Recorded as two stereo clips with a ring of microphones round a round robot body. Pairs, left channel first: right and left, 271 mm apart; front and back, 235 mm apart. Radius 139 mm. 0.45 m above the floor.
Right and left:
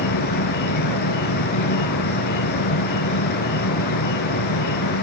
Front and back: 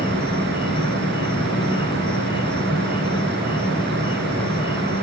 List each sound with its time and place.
0.0 s an insect: 75° right